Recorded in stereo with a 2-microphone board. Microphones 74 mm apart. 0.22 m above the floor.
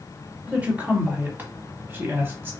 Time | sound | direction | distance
0.5 | a woman speaking | 20° right (ahead or behind) | 1.7 m